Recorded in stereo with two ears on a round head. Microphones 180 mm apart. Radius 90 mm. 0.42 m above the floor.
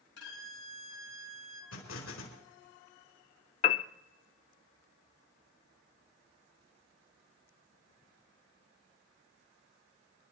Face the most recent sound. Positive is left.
turn(degrees=35)  # may be behind; listen again after turning